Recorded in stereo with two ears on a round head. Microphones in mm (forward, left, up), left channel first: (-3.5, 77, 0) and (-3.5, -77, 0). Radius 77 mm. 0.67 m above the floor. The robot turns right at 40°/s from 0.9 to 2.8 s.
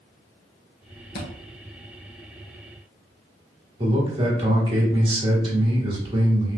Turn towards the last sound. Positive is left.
turn(degrees=-30)  # may be behind; listen again after turning